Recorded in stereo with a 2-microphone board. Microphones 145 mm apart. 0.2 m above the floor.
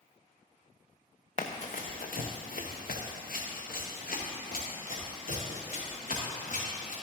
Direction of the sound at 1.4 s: 50° left (ahead or behind).